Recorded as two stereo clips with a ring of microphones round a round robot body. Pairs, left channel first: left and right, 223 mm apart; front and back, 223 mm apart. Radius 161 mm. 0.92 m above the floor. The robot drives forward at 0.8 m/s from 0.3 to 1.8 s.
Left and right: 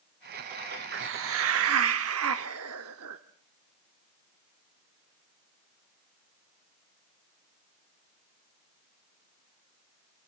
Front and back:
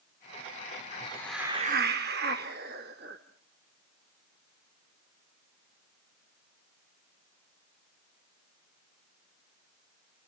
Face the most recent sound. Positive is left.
turn(degrees=-120)